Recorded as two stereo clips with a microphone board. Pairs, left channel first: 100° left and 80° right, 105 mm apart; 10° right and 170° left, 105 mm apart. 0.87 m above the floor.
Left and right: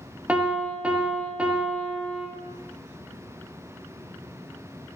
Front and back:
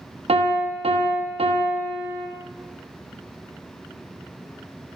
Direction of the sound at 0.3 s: 155° right.